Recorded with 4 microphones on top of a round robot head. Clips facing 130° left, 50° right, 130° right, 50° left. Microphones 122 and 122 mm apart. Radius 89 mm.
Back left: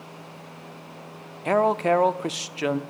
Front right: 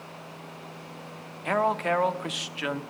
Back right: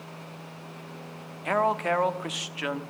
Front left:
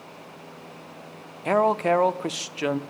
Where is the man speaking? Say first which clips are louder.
Back left 5 dB, front left 5 dB; 95° left, 0.9 m.